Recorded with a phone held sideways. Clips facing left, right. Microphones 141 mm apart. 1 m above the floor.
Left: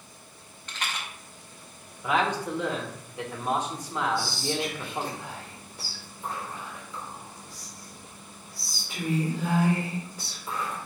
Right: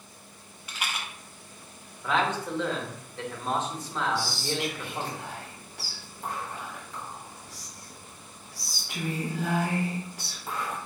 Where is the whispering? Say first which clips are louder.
Left 1 dB; 65° right (ahead or behind), 1.6 m.